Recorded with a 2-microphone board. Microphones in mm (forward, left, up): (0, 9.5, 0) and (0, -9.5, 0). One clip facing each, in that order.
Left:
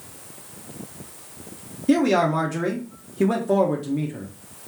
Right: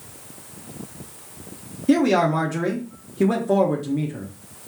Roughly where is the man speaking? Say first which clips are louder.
Right 1 dB; centre.